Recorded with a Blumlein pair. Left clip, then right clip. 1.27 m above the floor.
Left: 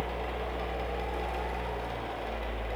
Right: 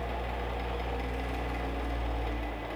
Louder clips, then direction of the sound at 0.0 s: Left 1 dB; straight ahead.